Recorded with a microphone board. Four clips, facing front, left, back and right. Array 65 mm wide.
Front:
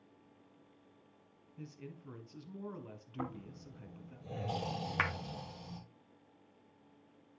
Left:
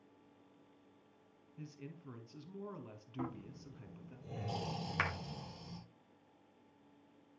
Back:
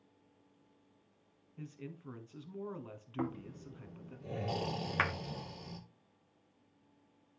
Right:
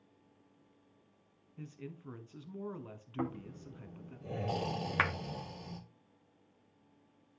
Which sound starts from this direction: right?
A clap, at 5.0 s.